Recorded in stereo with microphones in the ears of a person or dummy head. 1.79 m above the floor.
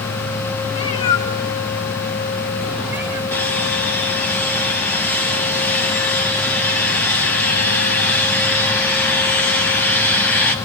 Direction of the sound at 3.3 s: 10° left (ahead or behind).